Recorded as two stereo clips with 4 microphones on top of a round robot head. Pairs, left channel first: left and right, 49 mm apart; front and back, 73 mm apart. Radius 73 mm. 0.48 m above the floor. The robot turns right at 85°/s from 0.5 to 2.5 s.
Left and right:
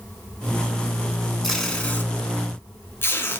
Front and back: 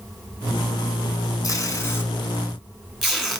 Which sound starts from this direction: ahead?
Tape being pulled, at 1.4 s.